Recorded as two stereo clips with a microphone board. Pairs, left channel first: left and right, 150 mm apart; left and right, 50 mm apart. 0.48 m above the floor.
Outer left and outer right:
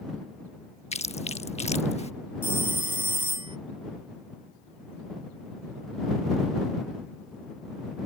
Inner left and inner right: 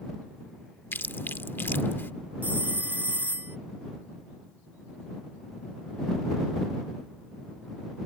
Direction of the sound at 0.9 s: 45° left (ahead or behind).